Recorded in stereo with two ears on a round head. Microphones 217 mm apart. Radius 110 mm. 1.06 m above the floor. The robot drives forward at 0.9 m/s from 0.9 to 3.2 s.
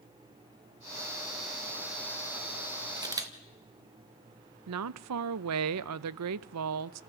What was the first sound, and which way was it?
A camera shutter, 20° right (ahead or behind).